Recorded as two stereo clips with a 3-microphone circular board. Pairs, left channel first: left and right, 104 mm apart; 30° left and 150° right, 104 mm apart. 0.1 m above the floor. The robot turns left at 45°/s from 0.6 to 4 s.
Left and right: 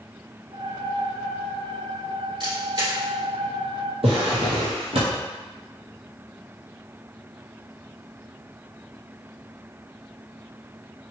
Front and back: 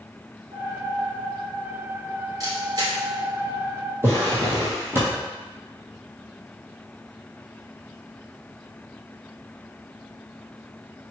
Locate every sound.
2.4 s a camera shutter: 105° right, 2.0 m; by 2.9 s 130° right, 2.0 m
4.0 s a drawer: 85° right, 1.2 m